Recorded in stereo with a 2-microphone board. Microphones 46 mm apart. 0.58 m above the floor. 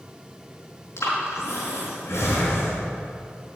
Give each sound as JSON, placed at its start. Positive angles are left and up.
{"t": 1.0, "sound": "breathing", "side_deg": 80, "distance_m": 5.5}